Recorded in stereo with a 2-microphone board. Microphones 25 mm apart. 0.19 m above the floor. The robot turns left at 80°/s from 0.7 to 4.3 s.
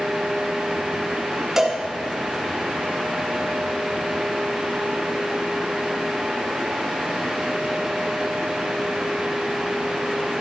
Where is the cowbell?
15° right (ahead or behind), 1.5 m; by 1.8 s 30° right (ahead or behind), 1.5 m.